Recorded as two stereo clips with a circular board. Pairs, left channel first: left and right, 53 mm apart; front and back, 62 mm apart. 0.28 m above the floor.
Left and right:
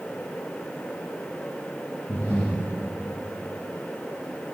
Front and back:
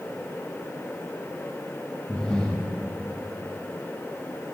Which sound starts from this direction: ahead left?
Breathing, at 2.1 s.